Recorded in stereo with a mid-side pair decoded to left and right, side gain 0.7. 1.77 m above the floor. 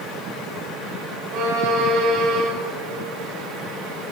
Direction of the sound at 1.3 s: 60° right.